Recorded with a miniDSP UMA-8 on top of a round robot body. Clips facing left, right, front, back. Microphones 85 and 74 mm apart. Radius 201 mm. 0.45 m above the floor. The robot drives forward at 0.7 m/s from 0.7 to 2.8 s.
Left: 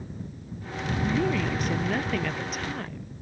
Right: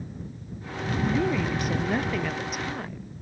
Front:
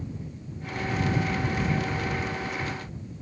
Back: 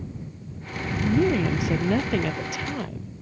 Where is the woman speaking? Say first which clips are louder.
Right 1 dB, back 9 dB; 175° right.